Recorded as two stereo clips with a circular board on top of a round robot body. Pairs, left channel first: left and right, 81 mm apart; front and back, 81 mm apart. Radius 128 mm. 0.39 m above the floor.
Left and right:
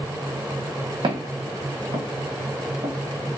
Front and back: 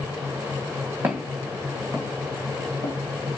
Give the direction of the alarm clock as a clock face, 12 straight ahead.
No alarm clock in this recording.